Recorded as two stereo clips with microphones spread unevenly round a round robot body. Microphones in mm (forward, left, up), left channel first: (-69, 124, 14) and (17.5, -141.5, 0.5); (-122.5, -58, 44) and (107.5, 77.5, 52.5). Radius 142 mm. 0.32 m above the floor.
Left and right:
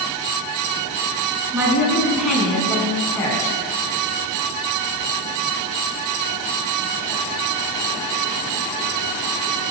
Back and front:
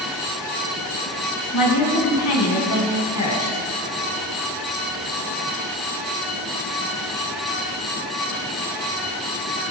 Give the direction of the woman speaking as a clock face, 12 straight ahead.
5 o'clock.